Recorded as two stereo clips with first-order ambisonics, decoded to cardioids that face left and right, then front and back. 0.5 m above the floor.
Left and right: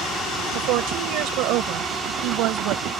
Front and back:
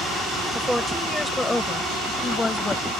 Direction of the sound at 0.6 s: 90° right.